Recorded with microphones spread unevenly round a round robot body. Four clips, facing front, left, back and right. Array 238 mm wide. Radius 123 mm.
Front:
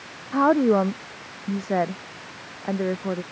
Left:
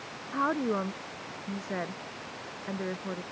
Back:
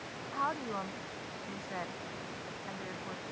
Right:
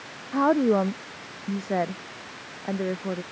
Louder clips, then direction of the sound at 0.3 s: Right 8 dB, front 17 dB; 20° right.